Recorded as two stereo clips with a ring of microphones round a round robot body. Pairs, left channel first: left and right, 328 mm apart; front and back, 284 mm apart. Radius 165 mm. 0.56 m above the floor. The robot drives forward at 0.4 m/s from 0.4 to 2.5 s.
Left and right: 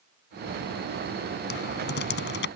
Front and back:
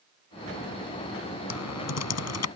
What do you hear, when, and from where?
1.5 s typing on a keyboard: 30° left